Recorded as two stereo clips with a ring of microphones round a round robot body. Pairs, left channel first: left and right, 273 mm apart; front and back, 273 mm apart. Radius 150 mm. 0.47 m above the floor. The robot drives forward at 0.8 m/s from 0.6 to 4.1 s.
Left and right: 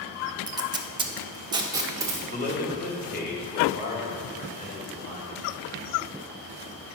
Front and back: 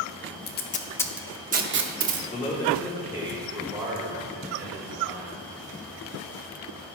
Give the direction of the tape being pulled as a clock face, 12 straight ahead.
1 o'clock.